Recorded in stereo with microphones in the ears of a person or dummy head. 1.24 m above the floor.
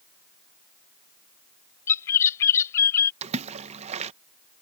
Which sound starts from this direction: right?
A splash, at 3.2 s.